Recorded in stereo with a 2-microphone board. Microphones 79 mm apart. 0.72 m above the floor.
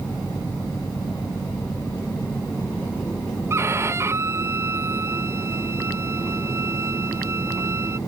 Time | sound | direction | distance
3.5 | a violin | 35° right (ahead or behind) | ?